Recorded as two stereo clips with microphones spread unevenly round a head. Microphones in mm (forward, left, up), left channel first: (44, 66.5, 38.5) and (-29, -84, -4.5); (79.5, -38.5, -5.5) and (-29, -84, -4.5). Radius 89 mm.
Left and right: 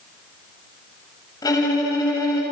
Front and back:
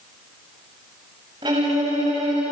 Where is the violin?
135° left, 7 m.